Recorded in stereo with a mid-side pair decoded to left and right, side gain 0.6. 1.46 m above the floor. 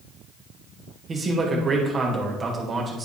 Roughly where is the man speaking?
Ahead right.